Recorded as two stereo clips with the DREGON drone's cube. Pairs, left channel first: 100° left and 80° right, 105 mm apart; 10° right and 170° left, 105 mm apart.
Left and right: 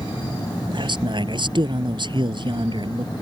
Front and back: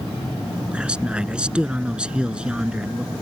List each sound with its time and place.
0.7 s a man speaking: 110° right